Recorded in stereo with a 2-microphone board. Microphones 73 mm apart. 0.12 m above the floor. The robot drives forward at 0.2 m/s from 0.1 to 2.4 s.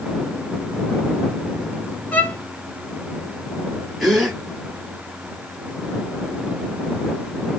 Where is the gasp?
Centre (ahead or behind), 3.5 m.